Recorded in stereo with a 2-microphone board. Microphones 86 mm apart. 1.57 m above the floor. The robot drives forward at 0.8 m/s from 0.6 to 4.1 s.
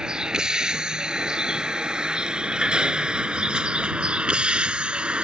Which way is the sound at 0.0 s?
10° right (ahead or behind).